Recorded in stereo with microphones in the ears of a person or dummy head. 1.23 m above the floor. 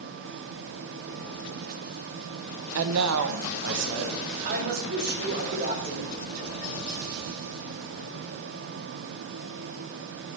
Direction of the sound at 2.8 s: 65° right (ahead or behind).